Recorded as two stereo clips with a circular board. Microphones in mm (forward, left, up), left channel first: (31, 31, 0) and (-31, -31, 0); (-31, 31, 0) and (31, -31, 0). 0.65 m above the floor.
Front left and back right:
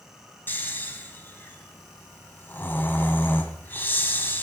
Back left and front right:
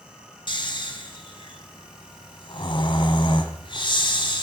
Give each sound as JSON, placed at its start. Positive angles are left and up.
{"t": 0.5, "sound": "snoring", "azimuth_deg": 110, "distance_m": 1.4}